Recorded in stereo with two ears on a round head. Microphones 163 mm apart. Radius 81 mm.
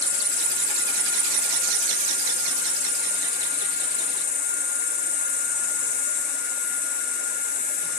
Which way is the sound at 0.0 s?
60° left (ahead or behind).